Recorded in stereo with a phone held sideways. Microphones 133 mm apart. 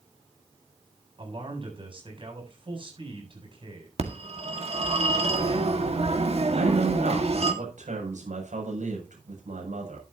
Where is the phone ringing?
50° right (ahead or behind), 1.8 m.